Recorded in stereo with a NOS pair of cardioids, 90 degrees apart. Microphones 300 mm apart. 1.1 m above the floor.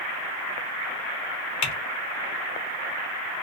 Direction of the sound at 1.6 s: 65° left.